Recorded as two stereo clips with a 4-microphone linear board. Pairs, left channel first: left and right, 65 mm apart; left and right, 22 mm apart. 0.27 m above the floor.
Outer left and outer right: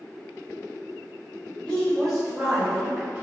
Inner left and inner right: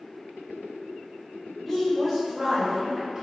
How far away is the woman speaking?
About 1.1 m.